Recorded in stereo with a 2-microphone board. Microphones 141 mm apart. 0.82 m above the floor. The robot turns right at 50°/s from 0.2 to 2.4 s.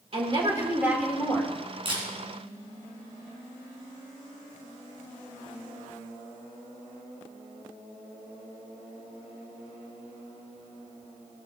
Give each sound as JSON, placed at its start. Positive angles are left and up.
{"t": 0.1, "sound": "a woman speaking", "azimuth_deg": -45, "distance_m": 3.0}
{"t": 1.9, "sound": "a camera shutter", "side_deg": -40, "distance_m": 3.5}